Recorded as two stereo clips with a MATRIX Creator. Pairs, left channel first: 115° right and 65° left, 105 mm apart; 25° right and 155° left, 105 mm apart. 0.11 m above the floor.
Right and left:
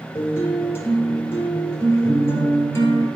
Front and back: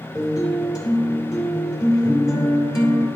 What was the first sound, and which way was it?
A guitar, 60° right.